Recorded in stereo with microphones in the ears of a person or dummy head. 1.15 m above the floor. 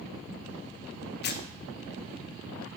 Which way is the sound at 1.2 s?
60° left (ahead or behind).